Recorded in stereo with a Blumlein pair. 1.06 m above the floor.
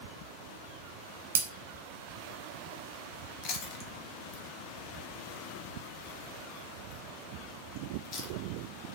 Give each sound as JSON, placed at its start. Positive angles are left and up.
{"t": 1.4, "sound": "breaking glass", "azimuth_deg": -60, "distance_m": 0.8}
{"t": 3.4, "sound": "chewing", "azimuth_deg": 35, "distance_m": 0.7}